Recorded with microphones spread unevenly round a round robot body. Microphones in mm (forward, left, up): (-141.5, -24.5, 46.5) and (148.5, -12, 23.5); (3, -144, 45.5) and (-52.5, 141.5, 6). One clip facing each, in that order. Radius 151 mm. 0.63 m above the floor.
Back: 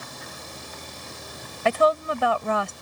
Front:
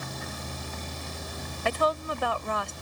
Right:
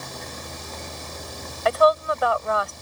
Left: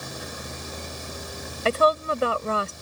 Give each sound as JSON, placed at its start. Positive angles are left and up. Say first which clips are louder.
{"t": 0.0, "sound": "a vehicle", "louder": "front 3 dB, left 1 dB", "azimuth_deg": 20}
{"t": 1.6, "sound": "a woman speaking", "louder": "back 7 dB, right 2 dB", "azimuth_deg": 160}